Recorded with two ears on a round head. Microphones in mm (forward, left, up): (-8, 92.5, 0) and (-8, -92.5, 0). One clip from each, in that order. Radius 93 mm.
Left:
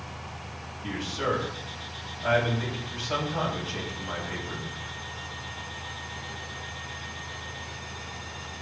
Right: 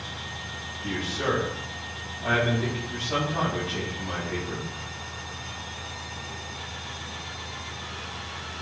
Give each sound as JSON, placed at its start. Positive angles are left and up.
{"t": 0.8, "sound": "a man speaking", "side_deg": 75, "distance_m": 6.0}